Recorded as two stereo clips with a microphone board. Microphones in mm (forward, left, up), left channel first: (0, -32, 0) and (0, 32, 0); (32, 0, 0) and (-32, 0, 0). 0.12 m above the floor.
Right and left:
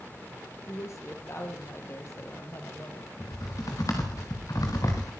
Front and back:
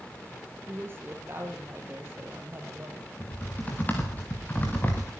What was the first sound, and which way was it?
A woman speaking, 130° right.